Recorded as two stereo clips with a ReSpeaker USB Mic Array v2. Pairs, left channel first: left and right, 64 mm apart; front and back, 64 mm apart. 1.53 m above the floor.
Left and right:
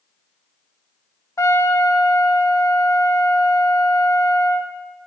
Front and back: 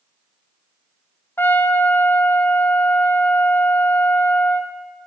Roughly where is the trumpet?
Ahead left.